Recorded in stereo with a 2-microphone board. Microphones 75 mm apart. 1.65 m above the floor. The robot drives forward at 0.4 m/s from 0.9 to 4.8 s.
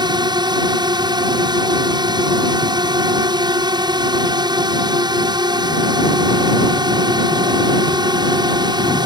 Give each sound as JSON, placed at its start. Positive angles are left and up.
{"t": 0.0, "sound": "a drone", "side_deg": -75}